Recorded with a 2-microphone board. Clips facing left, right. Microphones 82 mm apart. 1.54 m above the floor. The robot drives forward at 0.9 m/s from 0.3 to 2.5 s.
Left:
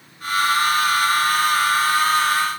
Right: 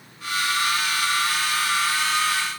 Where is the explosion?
No explosion in this recording.